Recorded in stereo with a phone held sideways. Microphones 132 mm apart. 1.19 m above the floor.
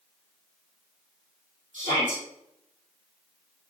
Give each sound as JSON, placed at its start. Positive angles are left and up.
{"t": 1.7, "sound": "a shout", "side_deg": -65, "distance_m": 3.5}